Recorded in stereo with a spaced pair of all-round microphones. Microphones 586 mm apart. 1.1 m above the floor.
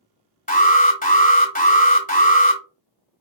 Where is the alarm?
15° left (ahead or behind), 1.0 m.